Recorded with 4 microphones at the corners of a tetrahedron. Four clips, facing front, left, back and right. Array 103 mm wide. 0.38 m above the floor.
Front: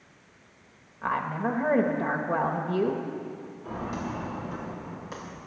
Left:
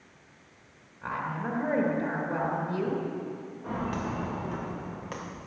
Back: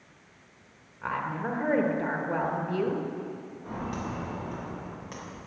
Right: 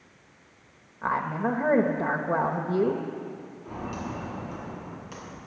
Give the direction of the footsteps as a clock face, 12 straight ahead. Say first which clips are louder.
Left 3 dB, front 1 dB; 9 o'clock.